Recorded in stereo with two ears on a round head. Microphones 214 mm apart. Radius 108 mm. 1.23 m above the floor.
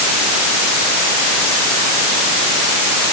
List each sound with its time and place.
Only background noise.